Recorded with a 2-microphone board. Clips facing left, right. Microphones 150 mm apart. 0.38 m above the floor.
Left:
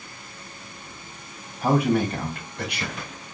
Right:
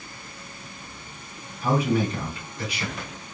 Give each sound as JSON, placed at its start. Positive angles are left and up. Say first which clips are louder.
{"t": 1.6, "sound": "a man speaking", "louder": "left 2 dB", "side_deg": 65, "distance_m": 2.5}